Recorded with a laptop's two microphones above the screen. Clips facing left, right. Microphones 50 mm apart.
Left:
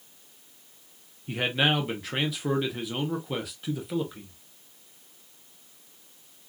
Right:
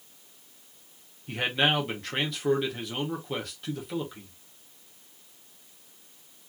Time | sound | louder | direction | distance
1.3 | a man speaking | even | 5° left (ahead or behind) | 0.8 m